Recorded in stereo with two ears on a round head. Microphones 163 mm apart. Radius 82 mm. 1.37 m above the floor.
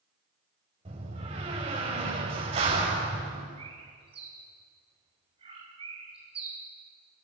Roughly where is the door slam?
Right.